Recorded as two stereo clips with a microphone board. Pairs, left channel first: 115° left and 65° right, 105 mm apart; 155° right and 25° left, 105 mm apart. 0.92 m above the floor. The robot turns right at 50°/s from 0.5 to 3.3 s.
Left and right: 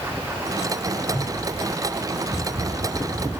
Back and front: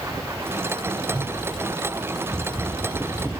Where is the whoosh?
160° left, 2.5 m; by 1.3 s 170° left, 2.5 m.